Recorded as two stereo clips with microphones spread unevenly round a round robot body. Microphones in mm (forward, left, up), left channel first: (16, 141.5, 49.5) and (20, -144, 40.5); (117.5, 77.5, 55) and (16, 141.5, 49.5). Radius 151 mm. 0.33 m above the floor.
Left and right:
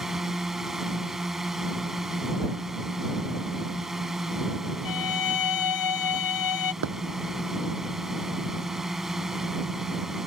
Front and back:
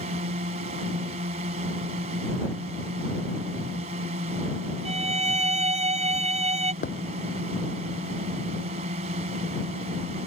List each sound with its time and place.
0.0 s a drone: straight behind
4.8 s a violin: 115° left
6.8 s a thud: 45° right